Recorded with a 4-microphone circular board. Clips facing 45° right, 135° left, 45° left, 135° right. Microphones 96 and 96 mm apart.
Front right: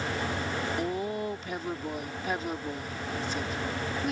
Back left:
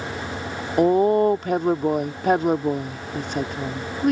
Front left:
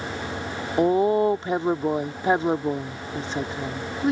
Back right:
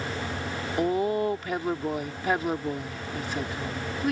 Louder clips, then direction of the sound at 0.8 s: Back left 15 dB, front left 6 dB; 110° left.